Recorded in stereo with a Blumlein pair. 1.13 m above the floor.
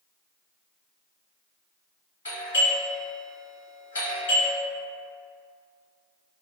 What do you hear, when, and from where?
2.2 s a doorbell: 70° left, 1.4 m